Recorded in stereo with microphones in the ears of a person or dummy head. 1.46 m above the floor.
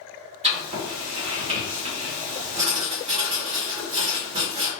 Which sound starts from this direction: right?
Writing, at 0.4 s.